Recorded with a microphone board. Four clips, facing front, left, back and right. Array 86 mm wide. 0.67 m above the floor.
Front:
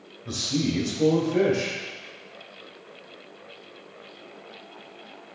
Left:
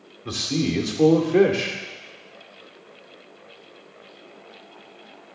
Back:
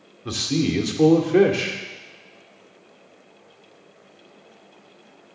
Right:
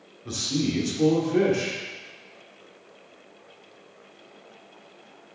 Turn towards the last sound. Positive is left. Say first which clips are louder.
# left 2 dB, back 4 dB
turn(degrees=155)